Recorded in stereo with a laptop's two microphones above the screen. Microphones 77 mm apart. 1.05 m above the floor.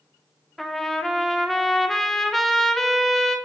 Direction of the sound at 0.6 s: 5° left (ahead or behind).